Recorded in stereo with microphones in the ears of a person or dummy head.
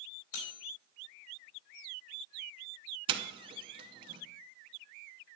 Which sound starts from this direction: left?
Cutlery clinking, at 0.3 s.